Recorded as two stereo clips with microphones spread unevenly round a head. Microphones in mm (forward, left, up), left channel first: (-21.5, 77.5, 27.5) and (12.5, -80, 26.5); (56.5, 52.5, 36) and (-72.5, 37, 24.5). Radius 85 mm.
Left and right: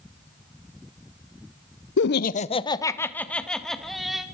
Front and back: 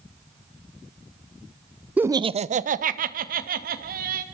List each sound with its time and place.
2.0 s laughter: 105° left, 0.7 m; by 4.2 s 165° right, 2.5 m